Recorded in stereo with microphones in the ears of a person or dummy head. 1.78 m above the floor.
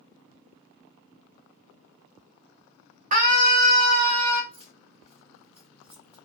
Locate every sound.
3.1 s a scream: 40° right (ahead or behind), 1.1 m; by 4.4 s 50° right (ahead or behind), 2.5 m
4.5 s keys jangling: 25° right (ahead or behind), 2.5 m